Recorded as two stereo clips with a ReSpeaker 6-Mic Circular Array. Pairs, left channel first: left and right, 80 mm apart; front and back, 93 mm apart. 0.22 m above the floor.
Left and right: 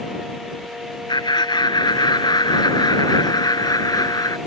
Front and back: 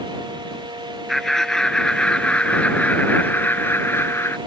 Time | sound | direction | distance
1.1 | laughter | 85° left | ?